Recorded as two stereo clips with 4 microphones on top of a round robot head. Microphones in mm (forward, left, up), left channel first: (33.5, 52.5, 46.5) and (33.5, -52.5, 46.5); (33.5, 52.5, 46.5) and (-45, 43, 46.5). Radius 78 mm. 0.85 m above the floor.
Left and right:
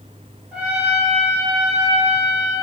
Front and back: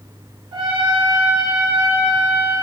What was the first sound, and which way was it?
A trumpet, 170° right.